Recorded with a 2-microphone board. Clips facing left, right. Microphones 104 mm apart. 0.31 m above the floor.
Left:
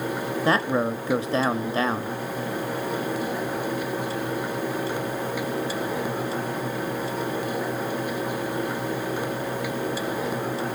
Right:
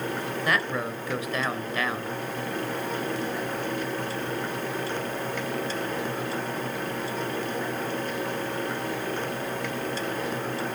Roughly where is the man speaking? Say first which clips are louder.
Left 6 dB; left.